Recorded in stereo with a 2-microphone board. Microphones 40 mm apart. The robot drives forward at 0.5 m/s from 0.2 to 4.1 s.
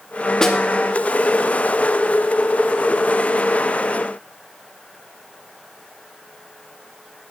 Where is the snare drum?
15° left (ahead or behind), 1.2 m.